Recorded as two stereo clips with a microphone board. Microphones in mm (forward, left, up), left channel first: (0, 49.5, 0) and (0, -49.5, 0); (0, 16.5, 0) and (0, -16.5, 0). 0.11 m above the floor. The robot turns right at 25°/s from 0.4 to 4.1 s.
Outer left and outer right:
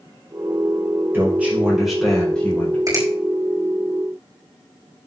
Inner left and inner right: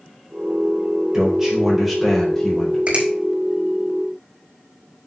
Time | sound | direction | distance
1.1 | a man speaking | 20° right | 6 m
2.9 | a finger snap | 40° right (ahead or behind) | 4.5 m